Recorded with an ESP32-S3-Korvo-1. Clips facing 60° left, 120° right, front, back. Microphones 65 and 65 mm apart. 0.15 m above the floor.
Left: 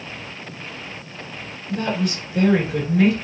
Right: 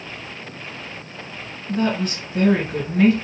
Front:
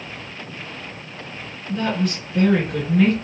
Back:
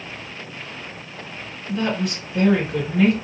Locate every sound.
1.7 s a woman speaking: 95° right, 2.5 m